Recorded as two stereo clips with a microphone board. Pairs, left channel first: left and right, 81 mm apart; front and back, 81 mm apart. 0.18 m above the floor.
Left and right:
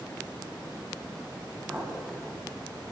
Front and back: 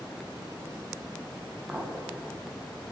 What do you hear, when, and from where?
1.7 s a clink: 140° right, 0.7 m